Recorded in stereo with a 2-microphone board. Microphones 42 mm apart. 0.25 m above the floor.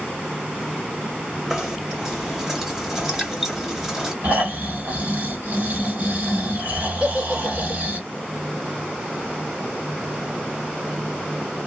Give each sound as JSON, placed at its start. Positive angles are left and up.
{"t": 1.5, "sound": "knocking", "side_deg": -10, "distance_m": 1.0}
{"t": 4.2, "sound": "snoring", "side_deg": -45, "distance_m": 1.8}
{"t": 7.0, "sound": "a giggle", "side_deg": -30, "distance_m": 0.9}